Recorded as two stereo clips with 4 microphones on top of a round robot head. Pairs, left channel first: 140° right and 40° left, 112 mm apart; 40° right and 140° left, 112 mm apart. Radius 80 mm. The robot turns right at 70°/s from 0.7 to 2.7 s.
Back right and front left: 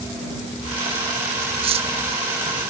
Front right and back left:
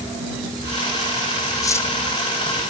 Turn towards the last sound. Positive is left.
turn(degrees=90)